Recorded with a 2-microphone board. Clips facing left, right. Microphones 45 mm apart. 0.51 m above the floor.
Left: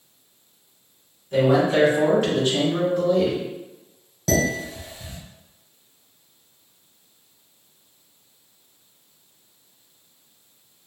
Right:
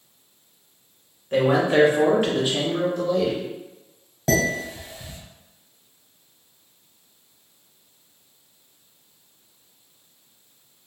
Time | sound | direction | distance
1.3 | a man speaking | 50° right (ahead or behind) | 1.3 m
4.3 | dishes clattering | 25° right (ahead or behind) | 1.4 m